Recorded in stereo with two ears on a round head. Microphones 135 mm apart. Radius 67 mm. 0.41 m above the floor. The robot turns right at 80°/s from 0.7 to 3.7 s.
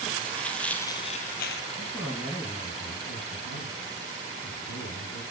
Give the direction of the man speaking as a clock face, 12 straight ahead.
1 o'clock.